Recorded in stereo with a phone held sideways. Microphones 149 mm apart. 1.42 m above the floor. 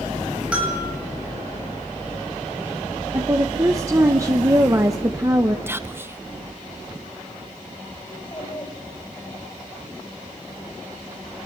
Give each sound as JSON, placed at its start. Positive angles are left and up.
{"t": 0.5, "sound": "a bell", "side_deg": -10, "distance_m": 8.5}
{"t": 3.1, "sound": "a woman speaking", "side_deg": -25, "distance_m": 1.2}
{"t": 5.7, "sound": "whispering", "side_deg": -15, "distance_m": 1.1}
{"t": 8.1, "sound": "a child speaking", "side_deg": 35, "distance_m": 3.5}